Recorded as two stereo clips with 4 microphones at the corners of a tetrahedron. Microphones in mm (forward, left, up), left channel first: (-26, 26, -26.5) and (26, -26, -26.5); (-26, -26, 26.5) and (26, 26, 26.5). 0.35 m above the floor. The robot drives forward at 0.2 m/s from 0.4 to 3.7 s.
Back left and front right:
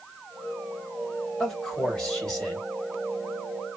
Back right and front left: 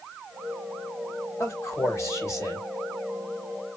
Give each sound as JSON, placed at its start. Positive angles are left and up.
{"t": 1.4, "sound": "a man speaking", "azimuth_deg": -145, "distance_m": 1.8}